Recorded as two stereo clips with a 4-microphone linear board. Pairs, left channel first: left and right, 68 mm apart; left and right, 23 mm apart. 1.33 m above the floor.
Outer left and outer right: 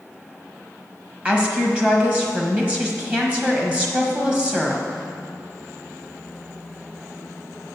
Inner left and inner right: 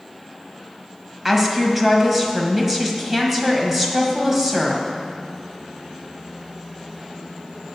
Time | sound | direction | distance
1.2 | a woman speaking | 20° right (ahead or behind) | 1.3 m